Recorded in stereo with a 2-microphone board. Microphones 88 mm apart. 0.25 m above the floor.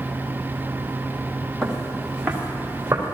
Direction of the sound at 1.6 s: 5° left (ahead or behind).